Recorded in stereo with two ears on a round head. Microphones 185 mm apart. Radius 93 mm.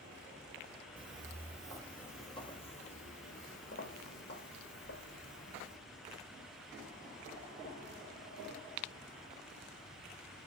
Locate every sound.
1.0 s footsteps: 25° right (ahead or behind), 1.3 m; by 5.8 s 60° left (ahead or behind), 4 m